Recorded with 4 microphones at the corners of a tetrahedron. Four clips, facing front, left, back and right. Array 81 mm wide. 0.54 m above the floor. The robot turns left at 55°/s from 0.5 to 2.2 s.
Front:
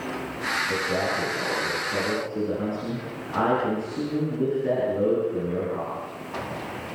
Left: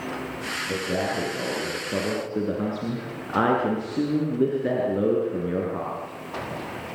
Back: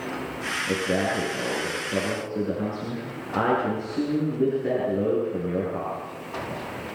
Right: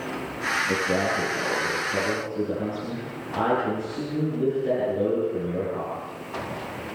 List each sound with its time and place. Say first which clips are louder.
0.7 s a man speaking: even, back 5 dB; 175° right, 8.5 m; by 6.0 s 100° left, 8.5 m